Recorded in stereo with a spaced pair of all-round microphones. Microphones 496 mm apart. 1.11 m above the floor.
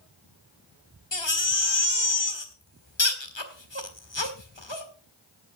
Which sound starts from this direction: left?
A baby crying, at 1.1 s.